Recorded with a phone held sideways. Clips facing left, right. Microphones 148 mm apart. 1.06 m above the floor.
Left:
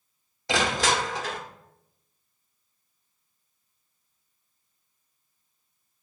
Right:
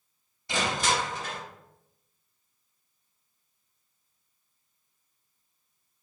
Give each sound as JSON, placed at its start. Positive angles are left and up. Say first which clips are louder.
{"t": 0.5, "sound": "crushing", "louder": "left 3 dB", "side_deg": 80, "distance_m": 1.4}